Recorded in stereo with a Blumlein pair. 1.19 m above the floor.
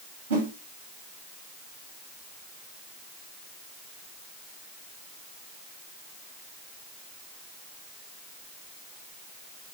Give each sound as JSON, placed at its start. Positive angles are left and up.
{"t": 0.3, "sound": "a whoosh", "azimuth_deg": -65, "distance_m": 1.4}